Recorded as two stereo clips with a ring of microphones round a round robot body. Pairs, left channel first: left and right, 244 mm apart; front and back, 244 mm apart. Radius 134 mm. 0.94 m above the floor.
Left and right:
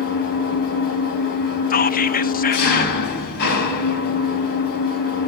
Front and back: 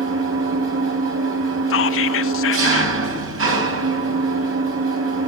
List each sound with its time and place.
0.0 s an engine running: 145° left, 3.5 m
1.7 s whispering: 35° left, 1.0 m